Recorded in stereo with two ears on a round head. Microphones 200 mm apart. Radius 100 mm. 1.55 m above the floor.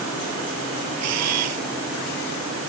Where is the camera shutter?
85° right.